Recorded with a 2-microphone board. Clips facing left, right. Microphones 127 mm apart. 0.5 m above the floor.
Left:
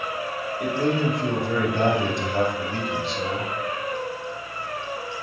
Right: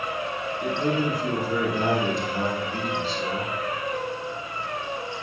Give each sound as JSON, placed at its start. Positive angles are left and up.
{"t": 0.6, "sound": "a man speaking", "side_deg": 65, "distance_m": 2.0}